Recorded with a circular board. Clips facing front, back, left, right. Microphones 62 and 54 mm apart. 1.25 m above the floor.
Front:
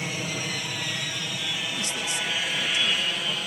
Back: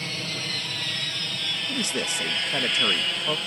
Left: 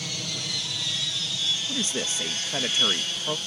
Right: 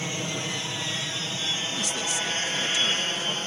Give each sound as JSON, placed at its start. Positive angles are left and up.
{"t": 0.0, "sound": "an aircraft", "azimuth_deg": -65}
{"t": 1.7, "sound": "a man speaking", "azimuth_deg": 145}